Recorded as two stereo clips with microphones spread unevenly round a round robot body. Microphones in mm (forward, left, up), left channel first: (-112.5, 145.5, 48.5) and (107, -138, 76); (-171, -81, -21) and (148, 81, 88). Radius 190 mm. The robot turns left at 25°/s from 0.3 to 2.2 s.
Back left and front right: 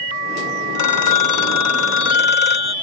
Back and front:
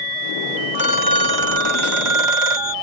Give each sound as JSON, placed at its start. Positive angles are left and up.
{"t": 0.8, "sound": "a phone ringing", "azimuth_deg": 105}